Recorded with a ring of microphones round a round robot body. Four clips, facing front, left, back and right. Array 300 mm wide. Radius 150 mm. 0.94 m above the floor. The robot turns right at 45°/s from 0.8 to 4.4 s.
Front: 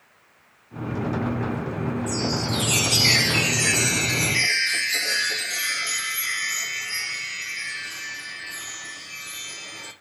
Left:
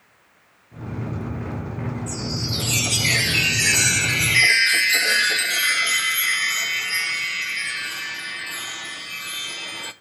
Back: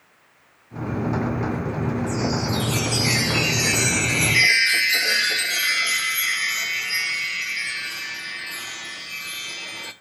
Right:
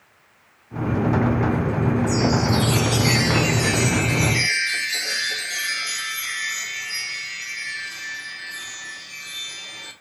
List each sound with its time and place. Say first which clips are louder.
2.1 s a chime: right 10 dB, back 2 dB; 10° left, 0.6 m; by 9.9 s 115° left, 0.6 m